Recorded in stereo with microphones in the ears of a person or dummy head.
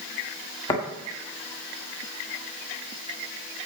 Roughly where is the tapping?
Centre.